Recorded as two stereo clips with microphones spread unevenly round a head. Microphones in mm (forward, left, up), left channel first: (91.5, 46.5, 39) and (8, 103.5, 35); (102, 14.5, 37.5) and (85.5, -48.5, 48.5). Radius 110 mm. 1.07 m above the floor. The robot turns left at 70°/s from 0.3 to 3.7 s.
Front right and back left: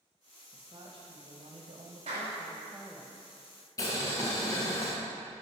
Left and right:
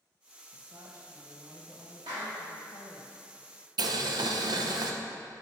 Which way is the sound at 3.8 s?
100° right.